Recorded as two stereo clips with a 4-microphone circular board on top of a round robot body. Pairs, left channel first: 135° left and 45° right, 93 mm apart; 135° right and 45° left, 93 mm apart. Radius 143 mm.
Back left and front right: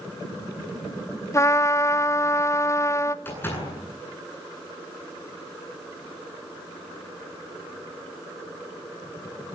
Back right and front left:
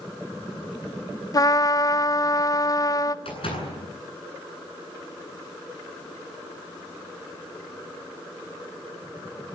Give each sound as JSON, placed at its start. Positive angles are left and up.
{"t": 1.3, "sound": "a trumpet", "azimuth_deg": -175, "distance_m": 1.1}
{"t": 3.2, "sound": "a door slam", "azimuth_deg": -160, "distance_m": 10.0}